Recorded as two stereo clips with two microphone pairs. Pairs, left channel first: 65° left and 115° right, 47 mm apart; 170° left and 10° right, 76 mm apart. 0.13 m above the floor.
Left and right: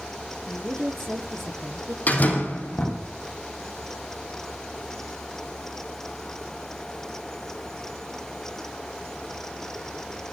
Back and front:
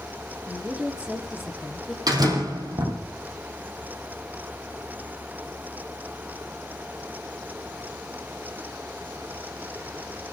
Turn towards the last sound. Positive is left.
turn(degrees=15)